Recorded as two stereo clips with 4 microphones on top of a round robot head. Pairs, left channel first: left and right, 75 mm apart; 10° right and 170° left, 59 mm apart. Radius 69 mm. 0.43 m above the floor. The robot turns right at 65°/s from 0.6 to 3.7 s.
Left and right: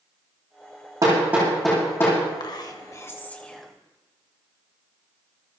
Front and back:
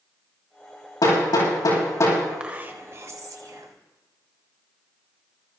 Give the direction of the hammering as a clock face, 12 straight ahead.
1 o'clock.